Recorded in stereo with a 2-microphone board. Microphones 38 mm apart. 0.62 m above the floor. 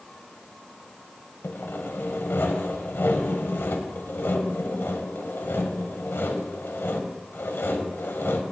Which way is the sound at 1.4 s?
75° left (ahead or behind).